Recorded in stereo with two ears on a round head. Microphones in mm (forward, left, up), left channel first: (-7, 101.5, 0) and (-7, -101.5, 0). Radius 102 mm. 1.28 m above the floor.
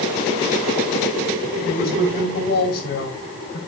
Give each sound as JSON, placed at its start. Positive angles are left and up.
{"t": 1.6, "sound": "a woman speaking", "side_deg": 50, "distance_m": 5.0}